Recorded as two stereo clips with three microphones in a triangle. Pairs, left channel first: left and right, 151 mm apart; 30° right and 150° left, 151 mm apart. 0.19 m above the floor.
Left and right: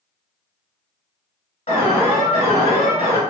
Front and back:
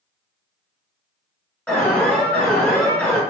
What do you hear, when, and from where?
1.7 s an alarm: 55° left, 1.7 m